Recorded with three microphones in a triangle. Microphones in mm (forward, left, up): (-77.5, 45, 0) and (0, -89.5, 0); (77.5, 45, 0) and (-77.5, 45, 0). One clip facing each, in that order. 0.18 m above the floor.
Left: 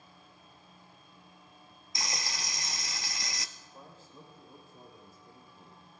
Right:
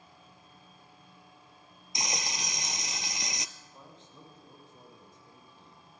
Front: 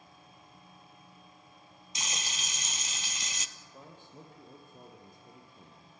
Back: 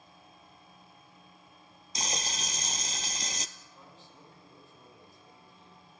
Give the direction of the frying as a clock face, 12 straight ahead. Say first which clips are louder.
Right 3 dB, back 5 dB; 4 o'clock.